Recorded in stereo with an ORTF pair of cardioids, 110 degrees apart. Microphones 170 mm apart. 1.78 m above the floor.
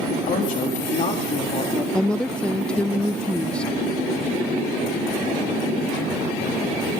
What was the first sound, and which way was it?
A woman speaking, 65° left.